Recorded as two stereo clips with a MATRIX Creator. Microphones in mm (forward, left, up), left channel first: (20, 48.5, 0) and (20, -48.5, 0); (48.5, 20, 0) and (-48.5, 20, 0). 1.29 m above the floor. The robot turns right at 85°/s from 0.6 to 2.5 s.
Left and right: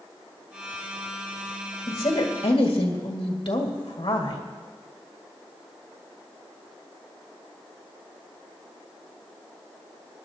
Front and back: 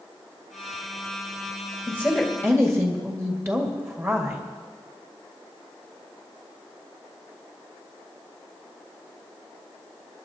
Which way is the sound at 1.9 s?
60° left.